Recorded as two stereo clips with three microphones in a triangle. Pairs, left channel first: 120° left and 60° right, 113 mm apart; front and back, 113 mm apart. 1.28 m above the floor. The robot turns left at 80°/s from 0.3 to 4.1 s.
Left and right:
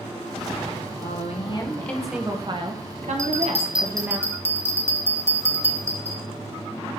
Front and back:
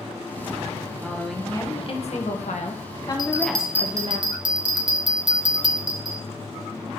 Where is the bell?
55° right, 0.8 m; by 6.2 s 130° right, 0.8 m.